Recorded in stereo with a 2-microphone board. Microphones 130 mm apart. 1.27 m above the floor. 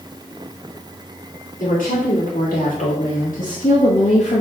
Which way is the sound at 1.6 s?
75° left (ahead or behind).